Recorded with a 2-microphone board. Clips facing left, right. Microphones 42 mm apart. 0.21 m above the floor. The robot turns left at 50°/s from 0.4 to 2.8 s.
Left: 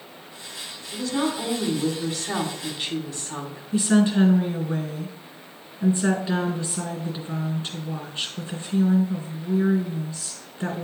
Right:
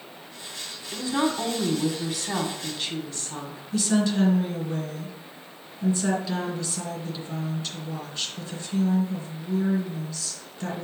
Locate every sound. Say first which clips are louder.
0.9 s a woman speaking: even; 110° right, 1.4 m; by 3.6 s 155° left, 1.4 m
3.7 s a woman speaking: left 4 dB; 25° left (ahead or behind), 2.5 m